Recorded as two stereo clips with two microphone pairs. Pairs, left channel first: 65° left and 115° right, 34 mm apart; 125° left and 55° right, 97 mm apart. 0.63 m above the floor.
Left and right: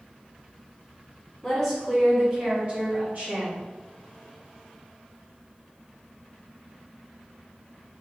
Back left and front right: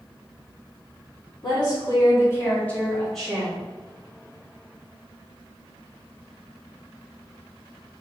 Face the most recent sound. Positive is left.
turn(degrees=-135)